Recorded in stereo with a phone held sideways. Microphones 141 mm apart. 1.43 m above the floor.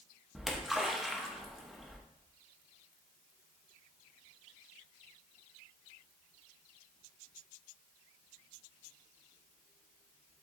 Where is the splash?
5° right (ahead or behind), 1.2 m.